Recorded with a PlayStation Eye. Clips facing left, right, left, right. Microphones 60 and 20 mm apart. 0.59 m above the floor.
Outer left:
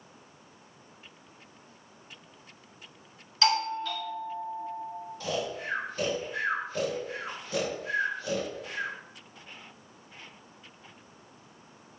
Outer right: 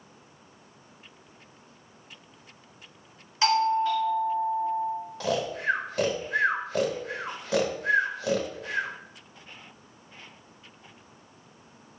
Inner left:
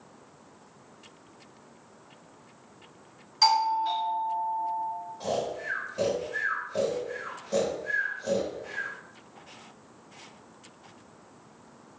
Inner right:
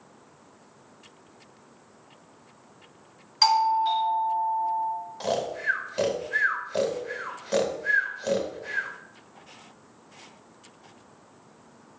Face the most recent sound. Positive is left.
turn(degrees=-80)